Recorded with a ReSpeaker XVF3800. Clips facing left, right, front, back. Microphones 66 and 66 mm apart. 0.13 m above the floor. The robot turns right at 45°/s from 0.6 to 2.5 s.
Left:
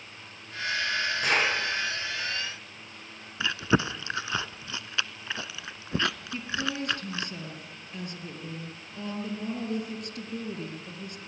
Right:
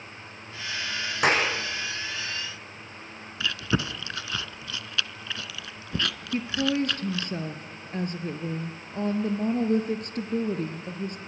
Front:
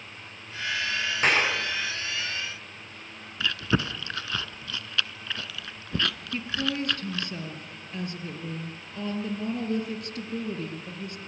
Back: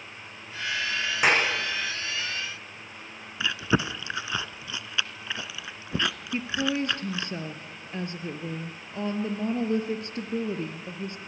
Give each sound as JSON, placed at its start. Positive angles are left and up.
{"t": 1.2, "sound": "a clap", "azimuth_deg": -100, "distance_m": 7.5}
{"t": 3.4, "sound": "chewing", "azimuth_deg": 120, "distance_m": 0.6}
{"t": 6.3, "sound": "a woman speaking", "azimuth_deg": -120, "distance_m": 2.5}